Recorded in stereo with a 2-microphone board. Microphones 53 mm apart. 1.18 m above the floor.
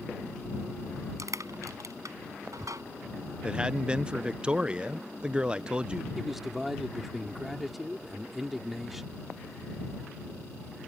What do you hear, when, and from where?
1.2 s crushing: 80° right
3.4 s a man speaking: 20° right (ahead or behind)
6.2 s a man speaking: 5° right (ahead or behind)